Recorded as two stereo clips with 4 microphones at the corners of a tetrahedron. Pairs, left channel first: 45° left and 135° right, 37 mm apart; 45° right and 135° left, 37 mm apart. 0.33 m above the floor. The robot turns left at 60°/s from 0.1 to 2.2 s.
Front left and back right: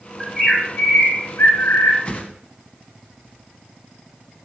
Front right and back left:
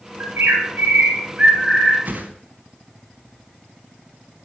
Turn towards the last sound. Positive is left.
turn(degrees=95)